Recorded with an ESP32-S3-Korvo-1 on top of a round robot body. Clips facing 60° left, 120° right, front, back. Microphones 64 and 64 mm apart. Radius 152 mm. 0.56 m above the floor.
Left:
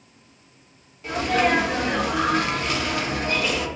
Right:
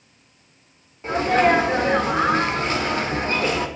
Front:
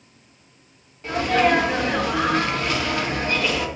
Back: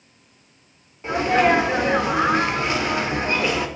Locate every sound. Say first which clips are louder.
1.0 s a sneeze: right 4 dB, back 1 dB; 130° right, 1.2 m